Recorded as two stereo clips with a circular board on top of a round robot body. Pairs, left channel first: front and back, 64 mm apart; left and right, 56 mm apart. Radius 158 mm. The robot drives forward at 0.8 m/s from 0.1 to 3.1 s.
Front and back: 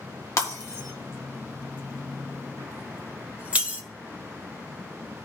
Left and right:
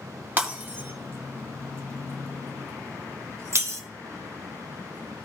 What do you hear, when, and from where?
0.4 s breaking glass: 35° right, 2 m; by 3.8 s 115° right, 1.4 m